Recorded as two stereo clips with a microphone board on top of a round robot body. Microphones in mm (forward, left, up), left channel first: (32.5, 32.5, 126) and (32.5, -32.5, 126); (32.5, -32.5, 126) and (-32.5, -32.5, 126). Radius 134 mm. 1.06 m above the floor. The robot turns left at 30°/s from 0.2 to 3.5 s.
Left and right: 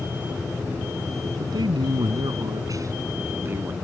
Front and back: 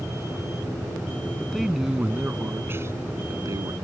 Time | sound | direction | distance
1.4 | a man speaking | 85° right | ?